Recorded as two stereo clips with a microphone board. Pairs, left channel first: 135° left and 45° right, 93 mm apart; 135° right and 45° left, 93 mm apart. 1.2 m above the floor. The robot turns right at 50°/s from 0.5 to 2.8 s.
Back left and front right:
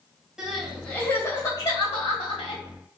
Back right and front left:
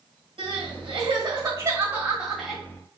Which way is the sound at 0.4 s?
40° left.